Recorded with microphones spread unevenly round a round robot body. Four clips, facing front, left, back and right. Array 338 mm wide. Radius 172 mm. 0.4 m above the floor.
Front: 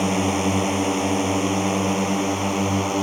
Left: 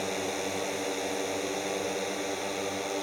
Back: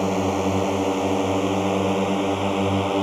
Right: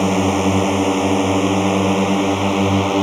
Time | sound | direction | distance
0.0 | a drone | 70° right | ?